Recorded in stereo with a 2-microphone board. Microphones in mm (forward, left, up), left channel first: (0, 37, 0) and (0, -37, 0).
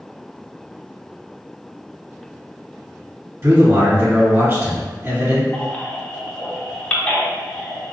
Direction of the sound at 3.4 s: 25° right (ahead or behind).